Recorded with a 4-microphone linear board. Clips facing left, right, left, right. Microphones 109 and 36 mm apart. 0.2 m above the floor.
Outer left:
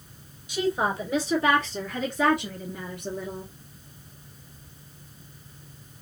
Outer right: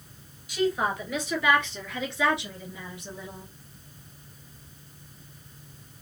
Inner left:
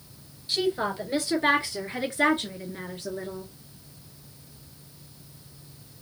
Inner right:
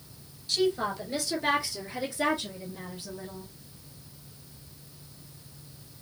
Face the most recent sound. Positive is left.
turn(degrees=60)  # may be behind; listen again after turning